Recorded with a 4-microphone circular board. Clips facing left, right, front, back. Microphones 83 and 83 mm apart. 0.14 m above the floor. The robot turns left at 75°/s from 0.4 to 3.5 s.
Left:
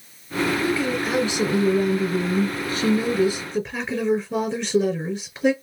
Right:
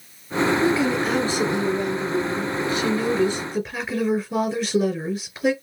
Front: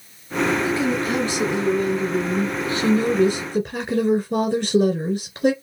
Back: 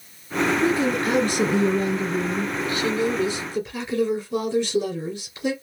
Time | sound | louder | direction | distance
0.6 | a woman speaking | right 3 dB, back 1 dB | 145° right | 2.5 m